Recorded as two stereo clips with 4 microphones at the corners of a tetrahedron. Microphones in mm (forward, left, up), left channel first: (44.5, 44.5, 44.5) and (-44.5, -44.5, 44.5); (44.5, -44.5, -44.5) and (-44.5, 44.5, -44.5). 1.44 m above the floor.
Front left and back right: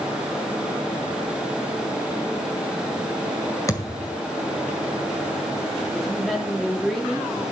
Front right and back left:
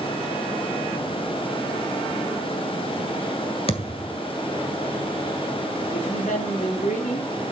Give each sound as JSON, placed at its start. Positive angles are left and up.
{"t": 3.7, "sound": "a thud", "azimuth_deg": -15, "distance_m": 2.0}
{"t": 5.9, "sound": "a woman speaking", "azimuth_deg": -40, "distance_m": 3.5}